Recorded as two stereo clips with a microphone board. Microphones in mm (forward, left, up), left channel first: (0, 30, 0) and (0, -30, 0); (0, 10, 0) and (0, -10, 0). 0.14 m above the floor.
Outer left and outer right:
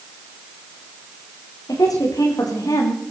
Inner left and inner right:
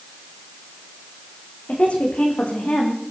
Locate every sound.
1.7 s a woman speaking: 80° left, 8 m; by 3.0 s 75° left (ahead or behind), 7.5 m